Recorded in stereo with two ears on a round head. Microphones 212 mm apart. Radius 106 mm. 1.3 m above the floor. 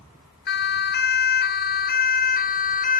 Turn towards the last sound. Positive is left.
turn(degrees=35)  # may be behind; listen again after turning